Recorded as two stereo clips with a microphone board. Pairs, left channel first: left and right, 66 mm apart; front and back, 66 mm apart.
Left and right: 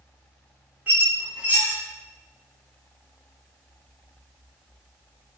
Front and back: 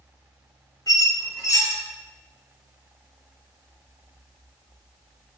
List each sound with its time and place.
0.9 s a squeak: 25° right, 0.7 m